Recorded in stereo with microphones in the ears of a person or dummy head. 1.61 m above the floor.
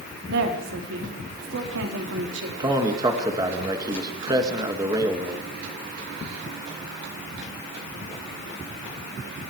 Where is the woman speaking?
65° right (ahead or behind), 4 m.